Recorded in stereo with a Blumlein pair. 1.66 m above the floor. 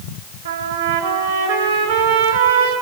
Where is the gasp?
I don't hear a gasp.